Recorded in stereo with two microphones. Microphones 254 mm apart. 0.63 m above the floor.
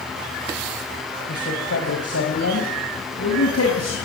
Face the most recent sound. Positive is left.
turn(degrees=80)